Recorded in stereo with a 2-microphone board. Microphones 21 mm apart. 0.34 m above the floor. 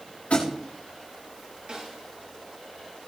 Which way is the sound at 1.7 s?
45° right (ahead or behind).